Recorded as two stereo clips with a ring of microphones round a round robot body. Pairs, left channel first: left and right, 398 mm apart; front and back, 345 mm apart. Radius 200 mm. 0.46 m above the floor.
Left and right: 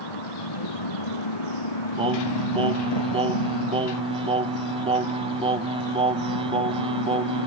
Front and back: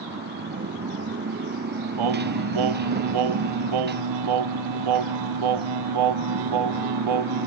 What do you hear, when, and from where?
0.0 s a motorcycle: 120° left
2.0 s singing: 165° right